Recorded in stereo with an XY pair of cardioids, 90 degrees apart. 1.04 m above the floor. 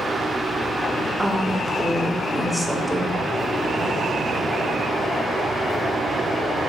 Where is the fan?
30° right, 1.8 m.